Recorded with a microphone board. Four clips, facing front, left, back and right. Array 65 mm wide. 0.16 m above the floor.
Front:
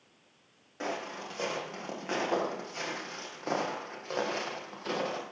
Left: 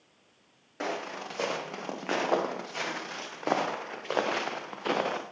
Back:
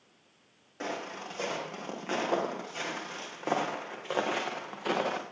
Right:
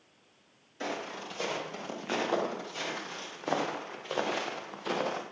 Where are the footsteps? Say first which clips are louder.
Left 2 dB, front 1 dB; 95° left, 7.5 m; by 5.2 s 120° left, 4 m.